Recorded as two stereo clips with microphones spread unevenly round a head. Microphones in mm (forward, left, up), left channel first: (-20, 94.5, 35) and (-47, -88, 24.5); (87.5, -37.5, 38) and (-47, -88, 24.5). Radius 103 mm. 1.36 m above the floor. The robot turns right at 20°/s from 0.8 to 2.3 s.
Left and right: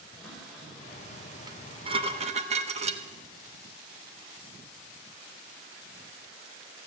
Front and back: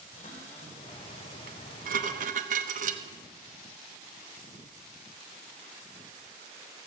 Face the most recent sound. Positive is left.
turn(degrees=-150)